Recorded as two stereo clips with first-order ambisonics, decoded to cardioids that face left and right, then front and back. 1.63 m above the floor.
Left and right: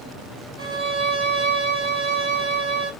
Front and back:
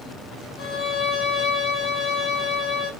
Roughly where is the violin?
Ahead right.